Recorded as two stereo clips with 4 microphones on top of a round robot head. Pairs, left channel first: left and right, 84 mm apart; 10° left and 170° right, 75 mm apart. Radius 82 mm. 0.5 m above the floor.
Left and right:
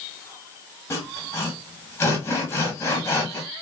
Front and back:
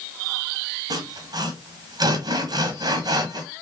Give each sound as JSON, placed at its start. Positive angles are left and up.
{"t": 0.9, "sound": "sawing", "azimuth_deg": 155, "distance_m": 1.2}